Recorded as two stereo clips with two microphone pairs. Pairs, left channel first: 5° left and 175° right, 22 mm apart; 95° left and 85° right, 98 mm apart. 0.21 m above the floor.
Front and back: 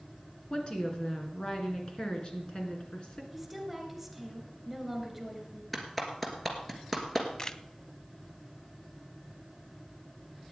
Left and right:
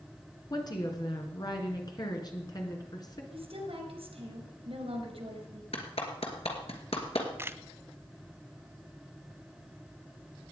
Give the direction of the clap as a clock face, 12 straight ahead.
9 o'clock.